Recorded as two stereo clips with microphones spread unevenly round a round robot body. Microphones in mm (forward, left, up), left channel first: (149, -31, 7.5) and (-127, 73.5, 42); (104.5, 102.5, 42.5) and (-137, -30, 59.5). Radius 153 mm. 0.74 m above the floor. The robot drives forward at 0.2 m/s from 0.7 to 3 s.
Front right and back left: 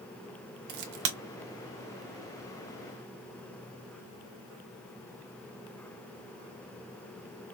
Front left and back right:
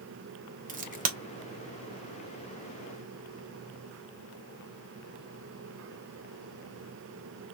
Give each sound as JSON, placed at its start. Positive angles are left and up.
{"t": 0.7, "sound": "a crack", "azimuth_deg": 145, "distance_m": 1.2}